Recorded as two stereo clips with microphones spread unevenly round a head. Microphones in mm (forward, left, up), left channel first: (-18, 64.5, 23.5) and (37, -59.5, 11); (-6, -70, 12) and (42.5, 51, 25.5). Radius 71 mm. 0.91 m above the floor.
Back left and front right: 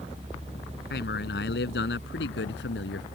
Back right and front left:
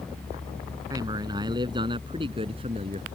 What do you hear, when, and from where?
0.9 s a man speaking: 135° left; by 3.0 s 120° left